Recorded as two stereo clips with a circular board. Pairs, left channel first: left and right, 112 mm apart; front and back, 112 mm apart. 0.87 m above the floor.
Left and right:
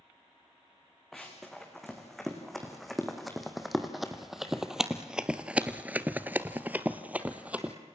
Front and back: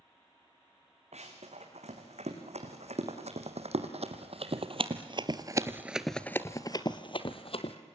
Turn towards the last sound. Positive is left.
turn(degrees=-10)